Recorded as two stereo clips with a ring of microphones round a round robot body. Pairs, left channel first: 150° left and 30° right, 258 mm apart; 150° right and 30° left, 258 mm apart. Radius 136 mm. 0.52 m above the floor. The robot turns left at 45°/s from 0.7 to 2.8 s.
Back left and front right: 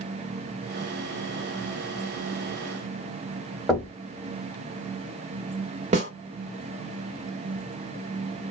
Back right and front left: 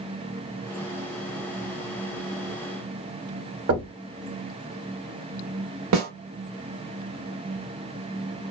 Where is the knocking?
60° left, 1.3 m.